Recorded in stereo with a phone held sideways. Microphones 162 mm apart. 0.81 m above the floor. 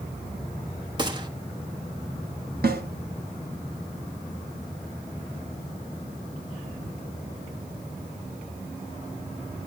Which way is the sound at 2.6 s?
70° right (ahead or behind).